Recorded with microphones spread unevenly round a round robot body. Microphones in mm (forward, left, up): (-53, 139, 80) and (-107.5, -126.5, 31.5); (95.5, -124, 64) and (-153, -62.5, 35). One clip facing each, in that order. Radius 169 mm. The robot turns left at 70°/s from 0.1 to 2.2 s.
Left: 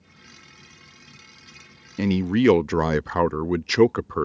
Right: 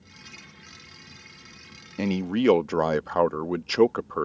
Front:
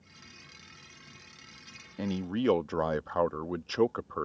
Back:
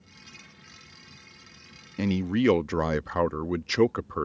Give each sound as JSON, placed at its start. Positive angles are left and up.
{"t": 2.0, "sound": "a man speaking", "azimuth_deg": 155}